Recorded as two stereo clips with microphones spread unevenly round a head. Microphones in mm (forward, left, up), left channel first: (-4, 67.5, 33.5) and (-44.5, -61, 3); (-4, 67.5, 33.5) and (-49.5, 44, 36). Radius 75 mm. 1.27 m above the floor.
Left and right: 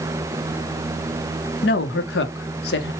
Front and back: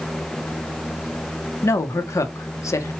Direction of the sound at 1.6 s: 50° left.